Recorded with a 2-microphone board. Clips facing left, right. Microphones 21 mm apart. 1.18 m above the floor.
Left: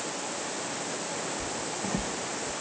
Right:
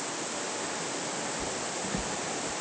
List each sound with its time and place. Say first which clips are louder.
1.4 s footsteps: even; 60° left (ahead or behind); by 2.5 s 65° left (ahead or behind)